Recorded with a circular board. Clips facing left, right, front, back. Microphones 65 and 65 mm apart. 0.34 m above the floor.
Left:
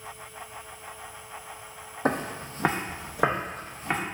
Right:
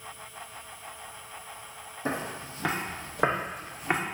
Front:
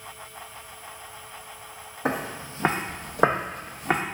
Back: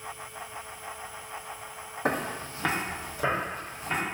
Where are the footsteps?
90° left, 0.6 m; by 4.0 s 15° right, 0.9 m.